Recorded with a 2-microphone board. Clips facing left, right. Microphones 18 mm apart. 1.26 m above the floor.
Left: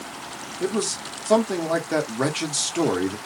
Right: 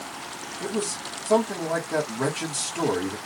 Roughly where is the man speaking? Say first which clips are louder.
Left 4 dB; left.